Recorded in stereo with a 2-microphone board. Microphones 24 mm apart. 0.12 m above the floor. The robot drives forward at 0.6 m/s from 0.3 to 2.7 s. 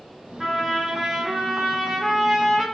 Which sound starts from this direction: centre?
A trumpet, at 0.4 s.